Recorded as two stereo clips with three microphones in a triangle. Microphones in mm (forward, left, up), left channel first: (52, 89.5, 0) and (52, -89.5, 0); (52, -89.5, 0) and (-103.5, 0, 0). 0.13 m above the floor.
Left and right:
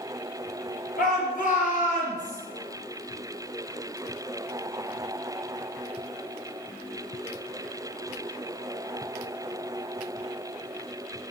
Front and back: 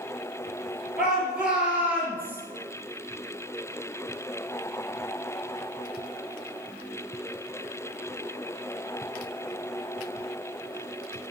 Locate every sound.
1.0 s a shout: 65° left, 3 m; by 2.4 s 75° left, 2 m